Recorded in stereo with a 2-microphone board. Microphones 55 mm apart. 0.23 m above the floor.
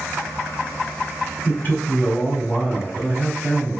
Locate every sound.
1.4 s a man speaking: 35° left (ahead or behind), 1.6 m